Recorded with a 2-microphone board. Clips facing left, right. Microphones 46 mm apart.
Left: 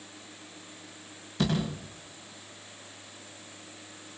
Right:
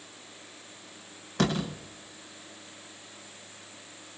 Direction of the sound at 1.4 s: 65° right (ahead or behind).